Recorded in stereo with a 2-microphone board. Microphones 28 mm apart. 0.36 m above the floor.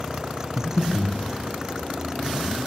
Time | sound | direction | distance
0.6 | breathing | 30° left (ahead or behind) | 4.5 m